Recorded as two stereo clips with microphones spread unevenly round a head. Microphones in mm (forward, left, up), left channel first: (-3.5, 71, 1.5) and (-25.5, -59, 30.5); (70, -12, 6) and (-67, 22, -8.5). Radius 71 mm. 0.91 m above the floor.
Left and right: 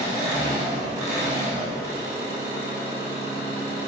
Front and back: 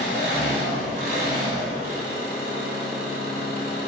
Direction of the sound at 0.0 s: 170° right.